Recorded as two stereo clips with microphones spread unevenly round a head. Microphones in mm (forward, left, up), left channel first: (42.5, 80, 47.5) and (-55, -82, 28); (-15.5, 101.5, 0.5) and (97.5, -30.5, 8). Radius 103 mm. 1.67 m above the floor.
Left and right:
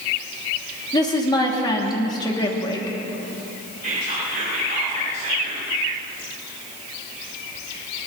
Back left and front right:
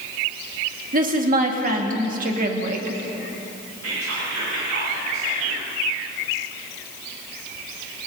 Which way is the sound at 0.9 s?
10° right.